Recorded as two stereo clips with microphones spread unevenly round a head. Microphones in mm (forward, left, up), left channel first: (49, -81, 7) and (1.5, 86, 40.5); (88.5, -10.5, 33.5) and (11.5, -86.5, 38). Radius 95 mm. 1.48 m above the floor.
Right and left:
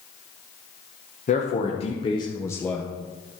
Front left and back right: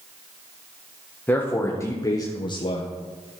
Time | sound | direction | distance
1.3 | a man speaking | 30° right | 1.6 m